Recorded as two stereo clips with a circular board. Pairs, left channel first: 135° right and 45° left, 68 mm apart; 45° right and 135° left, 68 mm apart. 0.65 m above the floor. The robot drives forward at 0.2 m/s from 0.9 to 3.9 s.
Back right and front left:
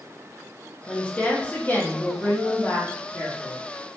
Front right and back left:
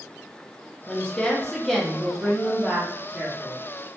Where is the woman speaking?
80° right, 0.5 m; by 3.6 s 160° right, 0.7 m.